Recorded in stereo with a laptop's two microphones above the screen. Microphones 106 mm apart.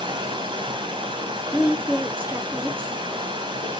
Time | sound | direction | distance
0.0 | running water | 50° right (ahead or behind) | 1.8 m
1.5 | a woman speaking | 20° right (ahead or behind) | 3 m